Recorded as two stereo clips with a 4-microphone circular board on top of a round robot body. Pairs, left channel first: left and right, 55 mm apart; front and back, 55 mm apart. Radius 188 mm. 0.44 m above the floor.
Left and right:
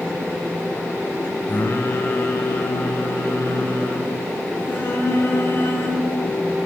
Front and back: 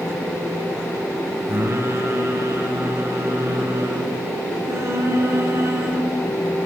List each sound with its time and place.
1.5 s singing: 140° left, 2 m